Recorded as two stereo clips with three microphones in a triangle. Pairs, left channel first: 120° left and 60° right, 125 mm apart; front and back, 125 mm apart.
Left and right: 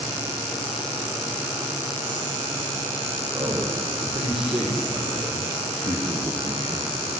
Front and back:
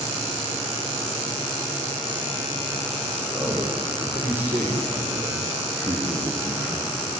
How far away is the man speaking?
About 8 m.